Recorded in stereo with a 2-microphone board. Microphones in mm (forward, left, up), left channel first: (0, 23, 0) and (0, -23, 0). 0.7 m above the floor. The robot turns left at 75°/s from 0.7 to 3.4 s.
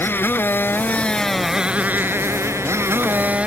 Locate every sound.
0.0 s a motorcycle: 55° left; by 3.5 s 150° right